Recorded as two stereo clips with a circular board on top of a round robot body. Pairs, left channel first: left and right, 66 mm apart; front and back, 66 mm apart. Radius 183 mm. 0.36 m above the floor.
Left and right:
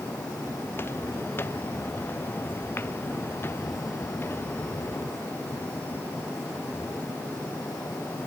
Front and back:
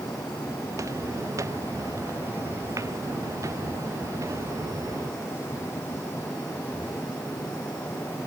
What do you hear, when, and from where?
0.7 s footsteps: 145° left